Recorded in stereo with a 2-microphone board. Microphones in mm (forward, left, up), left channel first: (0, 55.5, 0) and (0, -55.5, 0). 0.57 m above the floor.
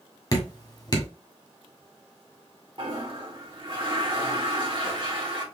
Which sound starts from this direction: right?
A toilet flushing, at 2.8 s.